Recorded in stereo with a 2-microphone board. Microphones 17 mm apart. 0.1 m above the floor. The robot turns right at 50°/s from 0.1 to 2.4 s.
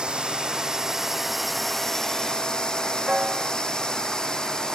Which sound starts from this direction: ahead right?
A drone, at 0.0 s.